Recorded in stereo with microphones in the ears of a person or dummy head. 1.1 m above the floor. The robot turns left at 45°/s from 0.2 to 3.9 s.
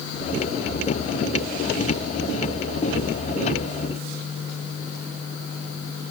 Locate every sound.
Only background noise.